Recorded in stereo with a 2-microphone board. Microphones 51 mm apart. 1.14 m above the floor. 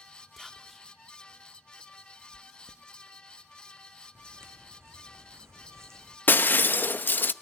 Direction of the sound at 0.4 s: Centre (ahead or behind).